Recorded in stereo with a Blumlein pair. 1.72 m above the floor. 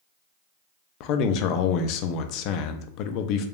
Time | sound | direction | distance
1.0 | a man speaking | 40° left | 0.5 m